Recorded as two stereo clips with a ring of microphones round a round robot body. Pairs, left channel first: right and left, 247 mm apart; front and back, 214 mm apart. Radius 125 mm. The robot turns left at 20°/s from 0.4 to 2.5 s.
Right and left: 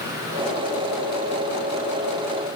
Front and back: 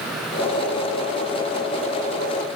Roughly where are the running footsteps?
I don't hear running footsteps.